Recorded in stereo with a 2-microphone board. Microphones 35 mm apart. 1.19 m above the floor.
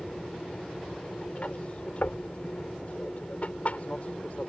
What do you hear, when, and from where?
0.0 s an aircraft: 40° left (ahead or behind); by 4.5 s 45° left (ahead or behind)
2.0 s knocking: 80° left